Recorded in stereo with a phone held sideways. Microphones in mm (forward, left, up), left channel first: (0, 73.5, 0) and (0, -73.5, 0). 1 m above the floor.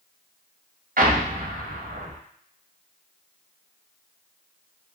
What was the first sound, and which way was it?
An explosion, 70° right (ahead or behind).